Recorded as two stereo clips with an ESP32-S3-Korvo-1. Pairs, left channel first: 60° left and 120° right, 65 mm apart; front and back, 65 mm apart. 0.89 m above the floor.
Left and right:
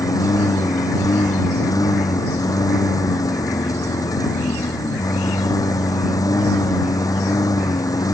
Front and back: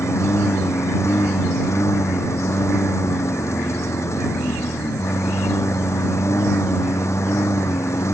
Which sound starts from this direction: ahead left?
A lawn mower, at 0.0 s.